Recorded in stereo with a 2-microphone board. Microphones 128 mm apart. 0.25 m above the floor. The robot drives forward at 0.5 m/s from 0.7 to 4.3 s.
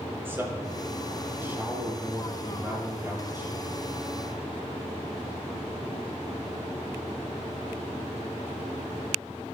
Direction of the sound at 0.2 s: 15° right (ahead or behind).